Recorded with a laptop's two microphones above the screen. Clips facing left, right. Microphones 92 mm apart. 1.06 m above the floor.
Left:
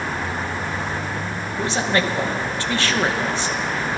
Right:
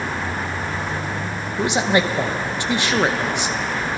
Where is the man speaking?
15° right (ahead or behind), 0.6 m.